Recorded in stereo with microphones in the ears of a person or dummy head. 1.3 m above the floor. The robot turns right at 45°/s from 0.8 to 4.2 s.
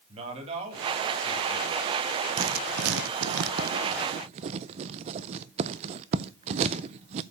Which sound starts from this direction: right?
Writing, at 2.4 s.